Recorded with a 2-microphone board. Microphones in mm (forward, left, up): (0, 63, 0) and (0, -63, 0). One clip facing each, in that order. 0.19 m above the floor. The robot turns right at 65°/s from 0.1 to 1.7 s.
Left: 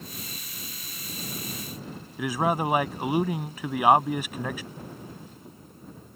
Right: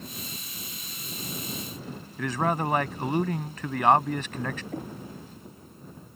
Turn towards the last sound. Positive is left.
turn(degrees=-65)  # may be behind; listen again after turning